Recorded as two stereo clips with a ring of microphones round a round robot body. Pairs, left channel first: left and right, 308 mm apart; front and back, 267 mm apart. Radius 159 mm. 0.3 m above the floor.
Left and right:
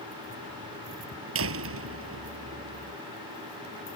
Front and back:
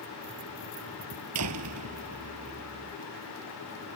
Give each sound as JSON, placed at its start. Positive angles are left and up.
{"t": 1.4, "sound": "a door slam", "azimuth_deg": -140}